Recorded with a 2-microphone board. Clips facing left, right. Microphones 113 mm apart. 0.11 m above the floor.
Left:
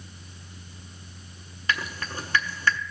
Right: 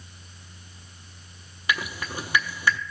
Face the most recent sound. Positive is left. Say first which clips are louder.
# right 1 dB
turn(degrees=-15)  # may be behind; listen again after turning